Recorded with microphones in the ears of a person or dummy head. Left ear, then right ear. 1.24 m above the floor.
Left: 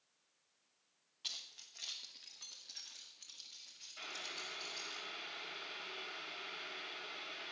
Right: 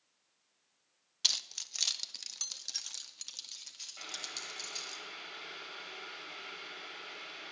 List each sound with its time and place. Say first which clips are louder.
1.2 s keys jangling: right 13 dB; 60° right (ahead or behind), 0.9 m; by 5.0 s 75° right (ahead or behind), 3 m
4.0 s boiling: right 2 dB; 5° left (ahead or behind), 5 m